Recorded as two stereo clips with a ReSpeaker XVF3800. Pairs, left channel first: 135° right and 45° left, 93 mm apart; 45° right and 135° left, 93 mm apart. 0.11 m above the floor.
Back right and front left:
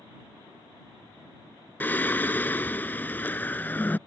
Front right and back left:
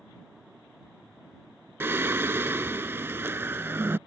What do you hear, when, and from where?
1.8 s singing: 175° left